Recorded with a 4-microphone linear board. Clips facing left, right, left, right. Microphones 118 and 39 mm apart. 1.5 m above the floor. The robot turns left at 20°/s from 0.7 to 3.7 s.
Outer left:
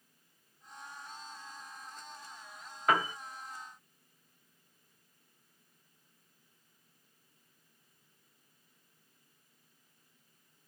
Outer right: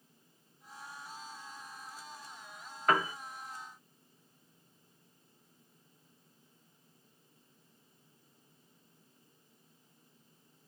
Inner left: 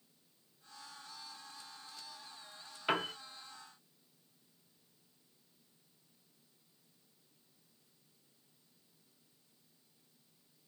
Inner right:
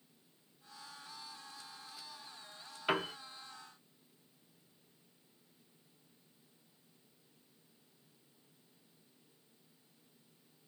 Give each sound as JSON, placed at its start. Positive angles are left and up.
{"t": 2.9, "sound": "a piano", "side_deg": 0, "distance_m": 0.8}